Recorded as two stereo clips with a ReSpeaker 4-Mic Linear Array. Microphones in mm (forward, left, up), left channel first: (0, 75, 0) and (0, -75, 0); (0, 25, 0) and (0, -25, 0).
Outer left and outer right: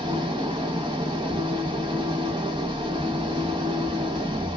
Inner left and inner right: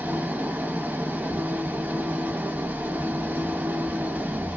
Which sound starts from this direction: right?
An engine running, at 0.0 s.